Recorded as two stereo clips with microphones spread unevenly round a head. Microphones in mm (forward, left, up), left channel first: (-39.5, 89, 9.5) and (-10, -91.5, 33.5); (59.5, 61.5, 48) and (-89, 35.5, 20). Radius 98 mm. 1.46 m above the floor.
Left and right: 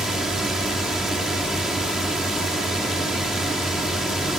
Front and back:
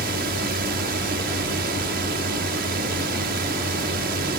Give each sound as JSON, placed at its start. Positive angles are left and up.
{"t": 0.0, "sound": "a drone", "azimuth_deg": -170}